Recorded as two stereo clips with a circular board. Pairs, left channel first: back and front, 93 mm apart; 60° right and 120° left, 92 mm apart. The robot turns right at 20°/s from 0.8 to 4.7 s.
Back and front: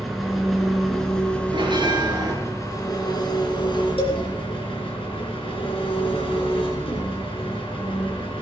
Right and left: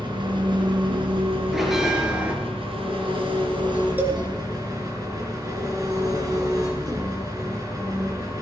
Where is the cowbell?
170° right, 3 m; by 4.2 s 165° right, 3 m.